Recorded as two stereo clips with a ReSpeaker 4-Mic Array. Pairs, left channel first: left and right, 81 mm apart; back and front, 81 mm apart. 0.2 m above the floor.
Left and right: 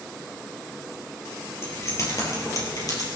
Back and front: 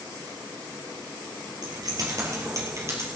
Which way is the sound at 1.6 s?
35° left.